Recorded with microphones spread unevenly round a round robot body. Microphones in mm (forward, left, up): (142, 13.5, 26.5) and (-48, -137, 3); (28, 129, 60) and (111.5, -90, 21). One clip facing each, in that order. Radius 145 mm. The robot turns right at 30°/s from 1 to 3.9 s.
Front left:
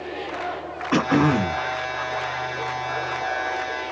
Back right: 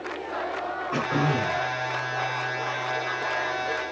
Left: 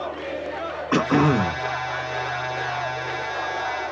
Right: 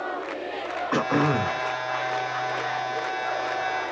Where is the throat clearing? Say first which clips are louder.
Front left 8 dB, left 5 dB; 55° left, 0.7 m; by 1.7 s 75° left, 0.7 m.